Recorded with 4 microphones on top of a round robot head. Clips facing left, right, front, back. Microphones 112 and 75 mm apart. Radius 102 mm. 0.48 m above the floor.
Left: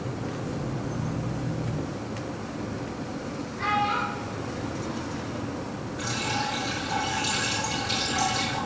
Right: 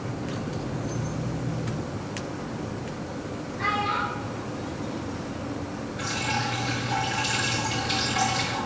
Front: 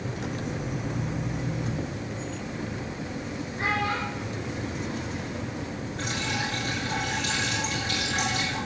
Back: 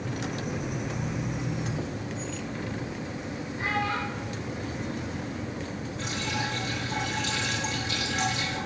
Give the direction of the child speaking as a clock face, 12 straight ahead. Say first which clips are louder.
Left 1 dB, front 1 dB; 11 o'clock.